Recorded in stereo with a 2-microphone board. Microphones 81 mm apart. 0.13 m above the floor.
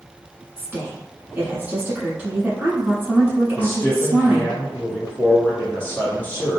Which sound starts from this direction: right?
A woman speaking, at 0.6 s.